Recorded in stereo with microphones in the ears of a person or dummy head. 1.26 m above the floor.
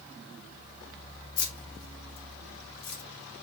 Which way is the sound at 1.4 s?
55° left (ahead or behind).